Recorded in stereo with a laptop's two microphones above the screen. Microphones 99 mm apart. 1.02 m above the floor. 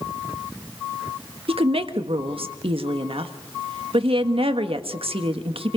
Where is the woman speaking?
70° right (ahead or behind), 1.6 m.